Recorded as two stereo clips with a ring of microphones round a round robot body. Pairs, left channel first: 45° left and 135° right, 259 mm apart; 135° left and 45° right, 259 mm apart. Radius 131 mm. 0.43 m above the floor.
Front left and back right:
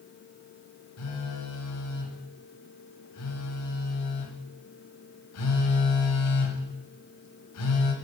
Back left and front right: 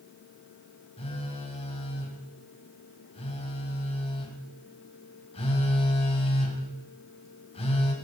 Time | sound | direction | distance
1.0 | a phone buzzing | 65° left | 2 m